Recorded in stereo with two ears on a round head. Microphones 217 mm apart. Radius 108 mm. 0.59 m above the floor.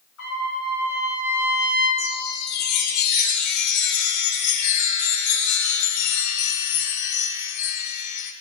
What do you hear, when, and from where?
0.2 s a trumpet: 65° left (ahead or behind), 5.5 m
2.0 s a chime: 80° left, 0.9 m